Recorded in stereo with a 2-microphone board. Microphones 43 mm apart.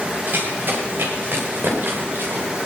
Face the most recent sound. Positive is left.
turn(degrees=-60)  # may be behind; listen again after turning